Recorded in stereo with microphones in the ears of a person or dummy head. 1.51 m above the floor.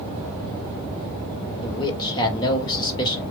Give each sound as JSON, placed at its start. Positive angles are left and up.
{"t": 1.6, "sound": "a man speaking", "side_deg": 25, "distance_m": 1.9}